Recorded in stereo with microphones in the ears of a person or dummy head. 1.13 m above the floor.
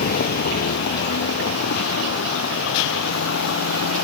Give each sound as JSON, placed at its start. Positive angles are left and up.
{"t": 0.0, "sound": "a vehicle", "side_deg": 40}